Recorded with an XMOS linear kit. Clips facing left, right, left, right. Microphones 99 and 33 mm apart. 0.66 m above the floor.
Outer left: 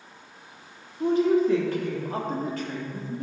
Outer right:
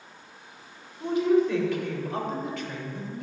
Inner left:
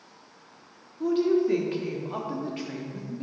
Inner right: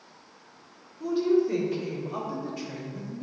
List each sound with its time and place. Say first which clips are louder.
1.0 s a woman speaking: outer left 1 dB, inner left 1 dB; 40° left (ahead or behind), 1.2 m